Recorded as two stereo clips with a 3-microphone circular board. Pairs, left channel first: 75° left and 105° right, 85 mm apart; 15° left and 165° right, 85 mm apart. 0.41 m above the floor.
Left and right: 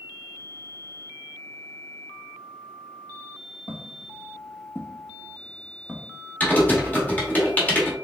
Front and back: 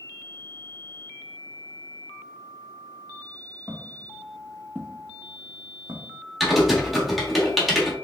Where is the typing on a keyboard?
110° left, 1.0 m.